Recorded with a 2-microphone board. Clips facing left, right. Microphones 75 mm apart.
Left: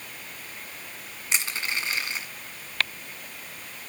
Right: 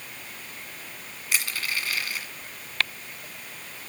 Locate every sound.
1.3 s crushing: 25° left (ahead or behind), 1.6 m